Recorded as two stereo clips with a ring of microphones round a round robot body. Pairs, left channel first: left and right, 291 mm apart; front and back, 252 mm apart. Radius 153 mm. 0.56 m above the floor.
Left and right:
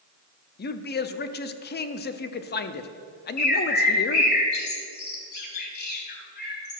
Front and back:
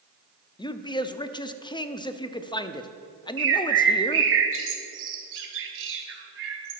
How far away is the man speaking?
About 0.7 m.